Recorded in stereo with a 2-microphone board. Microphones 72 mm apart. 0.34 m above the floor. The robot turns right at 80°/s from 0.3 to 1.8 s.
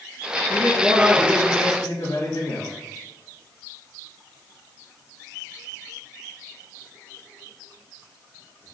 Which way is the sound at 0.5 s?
40° right.